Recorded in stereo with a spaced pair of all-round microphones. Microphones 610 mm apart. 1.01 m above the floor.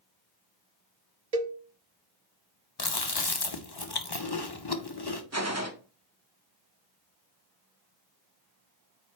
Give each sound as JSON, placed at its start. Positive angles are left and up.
{"t": 1.3, "sound": "a cowbell", "side_deg": -75, "distance_m": 1.0}
{"t": 2.8, "sound": "chewing", "side_deg": 40, "distance_m": 1.0}
{"t": 5.3, "sound": "a gunshot", "side_deg": -25, "distance_m": 1.1}